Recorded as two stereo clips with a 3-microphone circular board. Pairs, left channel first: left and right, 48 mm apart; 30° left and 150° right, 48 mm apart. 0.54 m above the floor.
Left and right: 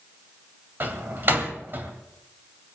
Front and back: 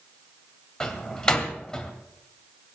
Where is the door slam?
45° right, 2 m.